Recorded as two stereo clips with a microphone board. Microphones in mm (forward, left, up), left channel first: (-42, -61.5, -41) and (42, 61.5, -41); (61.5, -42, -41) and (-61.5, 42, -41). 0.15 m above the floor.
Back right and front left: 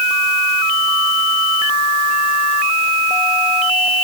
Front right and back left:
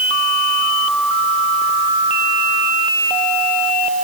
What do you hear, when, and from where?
Only background noise.